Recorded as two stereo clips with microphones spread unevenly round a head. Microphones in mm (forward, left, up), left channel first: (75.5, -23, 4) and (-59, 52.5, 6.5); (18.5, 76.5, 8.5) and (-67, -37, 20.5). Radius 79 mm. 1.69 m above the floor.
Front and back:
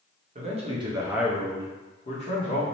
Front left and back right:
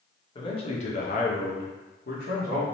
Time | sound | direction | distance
0.3 | a man speaking | 110° left | 0.9 m